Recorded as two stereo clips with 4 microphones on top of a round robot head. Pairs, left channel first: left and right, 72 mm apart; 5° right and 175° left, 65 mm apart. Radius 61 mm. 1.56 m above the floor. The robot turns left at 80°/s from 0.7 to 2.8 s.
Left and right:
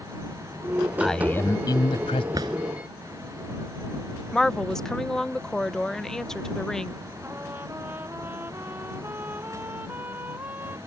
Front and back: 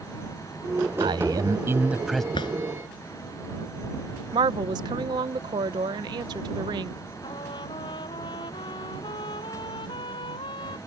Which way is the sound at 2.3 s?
30° right.